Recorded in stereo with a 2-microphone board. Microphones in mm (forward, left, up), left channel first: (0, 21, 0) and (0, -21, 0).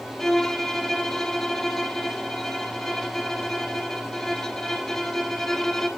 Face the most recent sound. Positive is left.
turn(degrees=10)  # may be behind; listen again after turning